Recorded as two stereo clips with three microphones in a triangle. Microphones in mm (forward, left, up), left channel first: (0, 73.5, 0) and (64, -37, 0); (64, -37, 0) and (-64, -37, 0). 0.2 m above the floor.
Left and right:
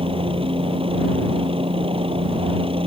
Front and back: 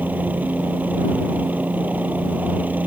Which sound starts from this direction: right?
A helicopter, at 0.0 s.